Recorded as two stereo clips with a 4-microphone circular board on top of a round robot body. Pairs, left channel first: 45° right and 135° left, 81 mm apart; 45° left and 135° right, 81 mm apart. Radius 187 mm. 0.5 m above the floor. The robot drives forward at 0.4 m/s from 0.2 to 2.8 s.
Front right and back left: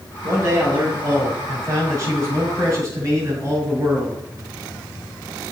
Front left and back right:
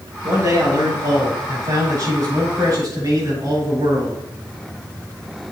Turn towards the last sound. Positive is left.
turn(degrees=-170)